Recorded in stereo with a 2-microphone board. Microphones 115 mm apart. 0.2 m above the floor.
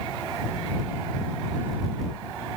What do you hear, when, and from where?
Only background noise.